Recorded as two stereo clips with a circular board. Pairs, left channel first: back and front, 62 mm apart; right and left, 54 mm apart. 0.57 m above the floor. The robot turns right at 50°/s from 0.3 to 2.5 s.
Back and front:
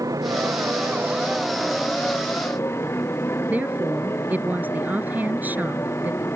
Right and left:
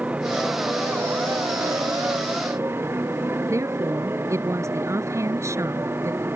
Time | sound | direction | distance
0.0 | a motorcycle | 25° left | ?
3.5 | a woman speaking | 65° left | ?